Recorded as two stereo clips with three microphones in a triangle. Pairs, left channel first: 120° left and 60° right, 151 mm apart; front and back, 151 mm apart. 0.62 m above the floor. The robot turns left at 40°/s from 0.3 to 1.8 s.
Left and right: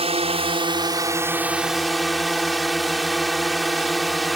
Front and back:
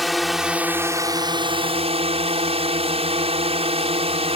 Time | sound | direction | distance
0.0 | a drone | 90° right | ?